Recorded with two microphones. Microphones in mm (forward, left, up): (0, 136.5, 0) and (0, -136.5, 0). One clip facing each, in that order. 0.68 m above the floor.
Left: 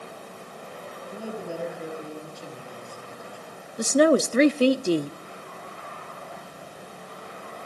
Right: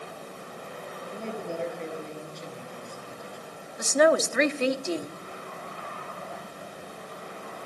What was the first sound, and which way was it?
A man speaking, 5° left (ahead or behind).